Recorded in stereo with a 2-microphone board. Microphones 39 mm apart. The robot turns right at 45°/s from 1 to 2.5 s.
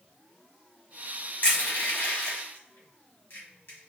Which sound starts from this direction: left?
Crushing, at 1.4 s.